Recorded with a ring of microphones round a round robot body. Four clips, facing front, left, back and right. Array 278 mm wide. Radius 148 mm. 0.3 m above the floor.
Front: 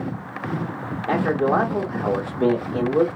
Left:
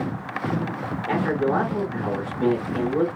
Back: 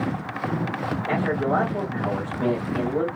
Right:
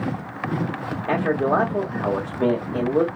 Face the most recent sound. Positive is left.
turn(degrees=-50)